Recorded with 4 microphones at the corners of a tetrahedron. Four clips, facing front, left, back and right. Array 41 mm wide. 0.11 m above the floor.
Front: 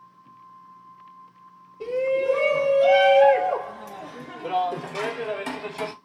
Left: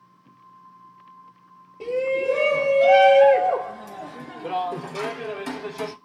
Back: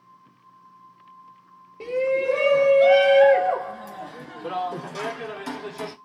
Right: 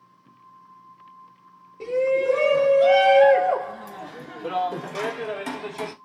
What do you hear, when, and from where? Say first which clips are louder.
1.8 s a shout: right 2 dB, even; 175° right, 1.9 m; by 5.9 s 45° right, 1.6 m